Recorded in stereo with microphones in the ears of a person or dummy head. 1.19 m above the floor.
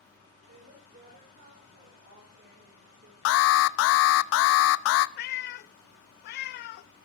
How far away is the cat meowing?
About 0.7 m.